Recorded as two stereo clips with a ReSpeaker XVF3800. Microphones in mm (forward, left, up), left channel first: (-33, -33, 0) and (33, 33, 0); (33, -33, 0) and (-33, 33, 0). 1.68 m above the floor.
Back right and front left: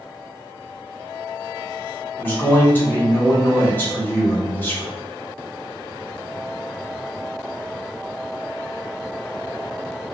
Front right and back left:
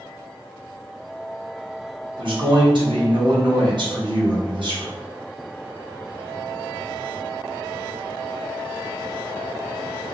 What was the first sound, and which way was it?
A man speaking, 160° left.